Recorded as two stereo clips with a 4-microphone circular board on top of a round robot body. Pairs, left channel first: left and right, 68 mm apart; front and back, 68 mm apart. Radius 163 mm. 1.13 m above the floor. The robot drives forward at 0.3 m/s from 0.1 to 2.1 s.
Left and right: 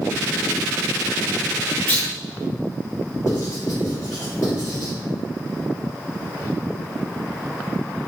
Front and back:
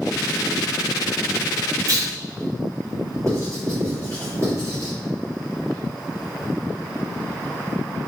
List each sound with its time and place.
1.9 s a clunk: 155° left, 1.1 m
3.3 s writing: 135° left, 1.9 m